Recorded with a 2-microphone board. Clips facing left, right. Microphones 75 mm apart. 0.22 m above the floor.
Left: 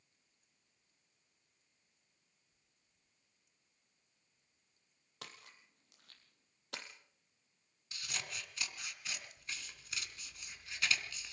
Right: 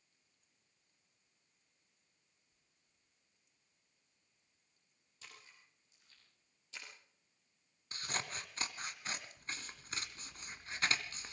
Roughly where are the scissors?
Right.